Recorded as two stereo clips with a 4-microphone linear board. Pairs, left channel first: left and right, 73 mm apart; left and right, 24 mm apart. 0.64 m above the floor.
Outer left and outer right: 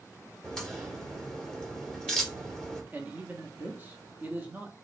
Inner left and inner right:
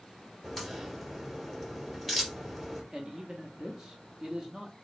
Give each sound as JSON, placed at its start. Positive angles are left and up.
{"t": 0.4, "sound": "a crack", "side_deg": 5, "distance_m": 2.5}
{"t": 2.9, "sound": "a man speaking", "side_deg": -25, "distance_m": 0.8}